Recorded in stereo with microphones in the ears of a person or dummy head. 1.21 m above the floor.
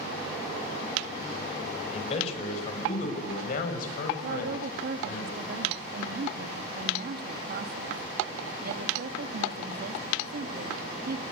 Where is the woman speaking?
55° right (ahead or behind), 1.9 m.